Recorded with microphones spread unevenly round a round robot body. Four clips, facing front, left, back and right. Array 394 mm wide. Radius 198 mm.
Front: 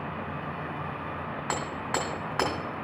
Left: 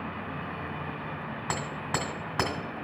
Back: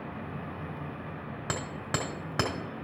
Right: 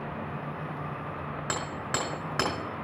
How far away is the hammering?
About 1.7 m.